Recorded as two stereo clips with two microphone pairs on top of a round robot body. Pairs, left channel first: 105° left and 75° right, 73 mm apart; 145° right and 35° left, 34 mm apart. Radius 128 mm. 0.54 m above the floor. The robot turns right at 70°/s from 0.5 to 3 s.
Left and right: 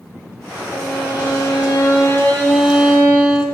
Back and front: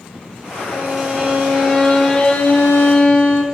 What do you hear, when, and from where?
0.7 s a violin: 60° left, 0.7 m; by 3.4 s 140° right, 0.7 m